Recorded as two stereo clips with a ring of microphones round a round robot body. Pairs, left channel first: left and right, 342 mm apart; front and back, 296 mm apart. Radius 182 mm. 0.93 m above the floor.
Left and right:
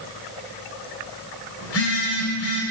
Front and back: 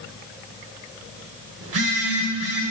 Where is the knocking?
No knocking in this recording.